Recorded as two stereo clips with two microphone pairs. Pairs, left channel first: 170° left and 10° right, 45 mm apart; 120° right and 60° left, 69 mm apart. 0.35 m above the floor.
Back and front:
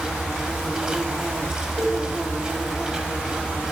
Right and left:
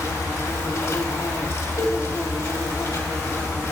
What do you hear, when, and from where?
0.0 s an insect: 85° right, 1.2 m
1.8 s a cowbell: 140° right, 3 m